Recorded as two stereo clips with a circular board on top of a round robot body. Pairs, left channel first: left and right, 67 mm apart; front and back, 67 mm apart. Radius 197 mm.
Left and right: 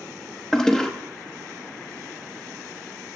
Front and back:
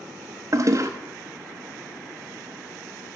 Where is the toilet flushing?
170° left, 1.0 m.